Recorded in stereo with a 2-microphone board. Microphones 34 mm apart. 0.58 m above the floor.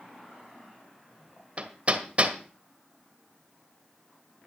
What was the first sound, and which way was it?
Hammering, 45° right (ahead or behind).